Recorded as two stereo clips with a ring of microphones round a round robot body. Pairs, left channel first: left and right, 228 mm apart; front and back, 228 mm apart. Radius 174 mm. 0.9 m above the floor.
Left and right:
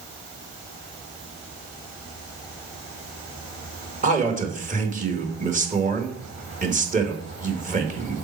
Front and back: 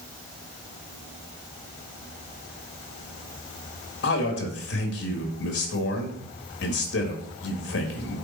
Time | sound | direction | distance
4.0 | a man speaking | 35° right | 1.8 m